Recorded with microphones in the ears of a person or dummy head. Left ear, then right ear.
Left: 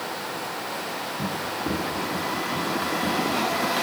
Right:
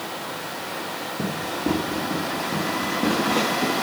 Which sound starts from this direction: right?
Running footsteps, at 1.2 s.